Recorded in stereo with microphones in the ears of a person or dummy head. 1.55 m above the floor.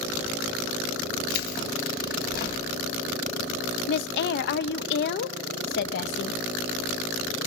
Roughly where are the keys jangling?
Left.